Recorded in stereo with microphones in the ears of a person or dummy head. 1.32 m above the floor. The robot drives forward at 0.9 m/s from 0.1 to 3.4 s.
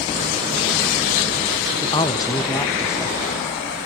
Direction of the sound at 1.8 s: 25° left (ahead or behind).